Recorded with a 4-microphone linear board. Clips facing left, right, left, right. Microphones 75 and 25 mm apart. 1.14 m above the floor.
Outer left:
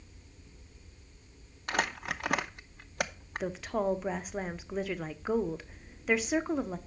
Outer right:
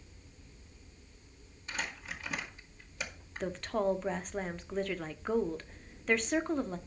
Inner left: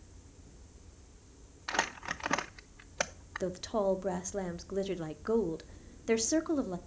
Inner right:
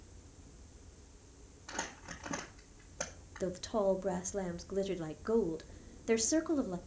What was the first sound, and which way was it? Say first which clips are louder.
Crumpling: outer left 8 dB, inner left 9 dB; 65° left (ahead or behind).